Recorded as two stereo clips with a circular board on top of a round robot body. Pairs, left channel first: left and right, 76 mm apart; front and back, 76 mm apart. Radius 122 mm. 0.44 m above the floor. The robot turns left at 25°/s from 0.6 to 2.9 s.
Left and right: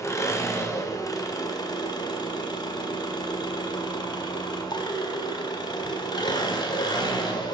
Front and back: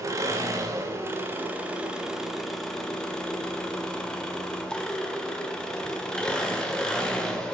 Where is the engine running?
135° left, 1.6 m; by 7.5 s 80° left, 1.6 m.